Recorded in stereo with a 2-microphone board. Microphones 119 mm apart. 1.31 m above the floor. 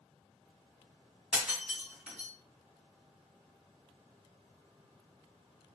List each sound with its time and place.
1.3 s breaking glass: 5° right (ahead or behind), 1.4 m